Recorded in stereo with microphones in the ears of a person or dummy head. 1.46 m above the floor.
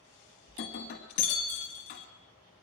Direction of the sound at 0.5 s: 30° left (ahead or behind).